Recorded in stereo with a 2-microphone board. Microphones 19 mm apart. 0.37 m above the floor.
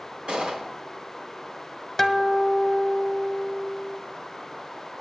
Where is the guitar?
10° left (ahead or behind), 0.9 m.